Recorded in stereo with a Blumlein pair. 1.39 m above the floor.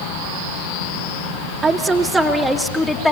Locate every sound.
1.6 s a woman speaking: 15° right, 2 m; by 3.1 s 10° left, 2.5 m